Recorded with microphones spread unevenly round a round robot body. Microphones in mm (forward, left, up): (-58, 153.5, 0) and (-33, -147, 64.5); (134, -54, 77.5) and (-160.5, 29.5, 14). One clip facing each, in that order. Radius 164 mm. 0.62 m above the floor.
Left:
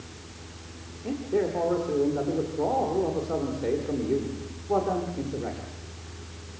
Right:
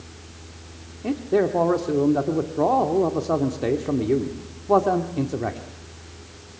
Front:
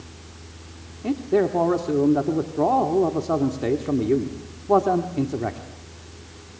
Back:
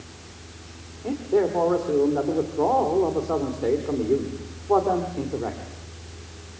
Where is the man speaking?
65° right, 1.7 m.